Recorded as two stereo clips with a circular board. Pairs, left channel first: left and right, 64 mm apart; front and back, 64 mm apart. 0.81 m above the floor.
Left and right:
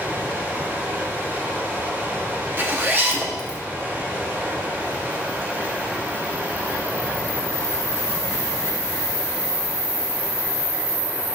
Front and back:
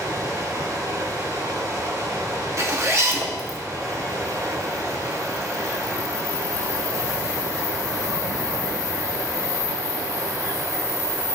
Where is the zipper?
145° right, 1.2 m.